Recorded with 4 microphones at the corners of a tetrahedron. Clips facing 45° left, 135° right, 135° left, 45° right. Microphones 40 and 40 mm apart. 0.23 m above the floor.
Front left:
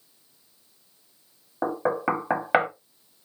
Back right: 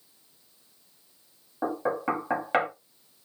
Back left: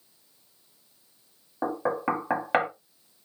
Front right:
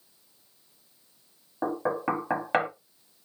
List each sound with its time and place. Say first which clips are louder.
1.6 s knocking: front left 3 dB, back left 1 dB; 60° left, 0.7 m